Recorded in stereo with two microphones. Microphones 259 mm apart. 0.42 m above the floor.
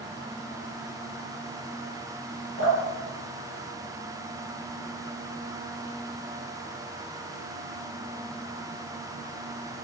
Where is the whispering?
I don't hear whispering.